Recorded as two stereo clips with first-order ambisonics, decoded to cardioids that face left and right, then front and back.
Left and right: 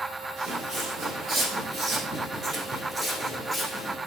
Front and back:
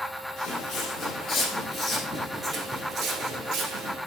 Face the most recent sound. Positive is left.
turn(degrees=180)